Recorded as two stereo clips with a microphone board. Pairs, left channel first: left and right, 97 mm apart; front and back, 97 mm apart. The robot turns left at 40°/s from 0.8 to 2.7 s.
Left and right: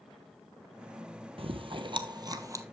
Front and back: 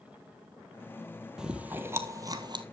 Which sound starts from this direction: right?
Chewing, at 1.4 s.